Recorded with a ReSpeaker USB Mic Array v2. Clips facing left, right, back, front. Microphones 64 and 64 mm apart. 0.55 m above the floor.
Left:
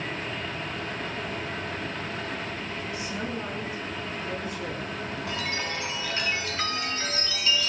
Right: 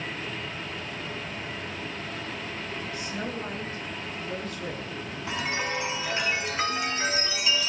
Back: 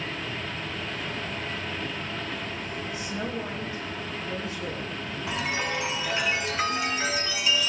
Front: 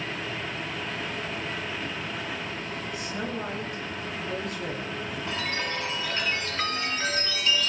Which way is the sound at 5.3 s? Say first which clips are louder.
Right 4 dB, back 3 dB; 125° right.